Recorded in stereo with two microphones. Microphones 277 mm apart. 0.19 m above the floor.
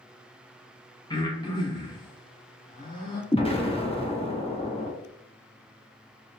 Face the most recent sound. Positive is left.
turn(degrees=20)  # may be behind; listen again after turning